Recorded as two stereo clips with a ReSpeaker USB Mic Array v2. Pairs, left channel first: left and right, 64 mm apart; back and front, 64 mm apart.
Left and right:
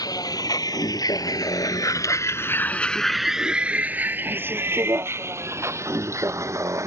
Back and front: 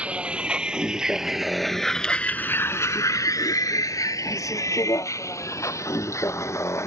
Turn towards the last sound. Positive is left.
turn(degrees=-135)